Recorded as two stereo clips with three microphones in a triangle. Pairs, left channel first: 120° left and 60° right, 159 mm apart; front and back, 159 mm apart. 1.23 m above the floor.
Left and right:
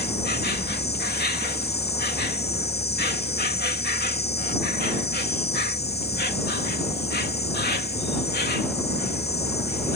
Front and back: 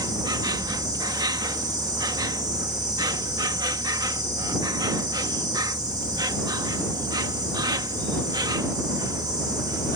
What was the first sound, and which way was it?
An insect, 115° left.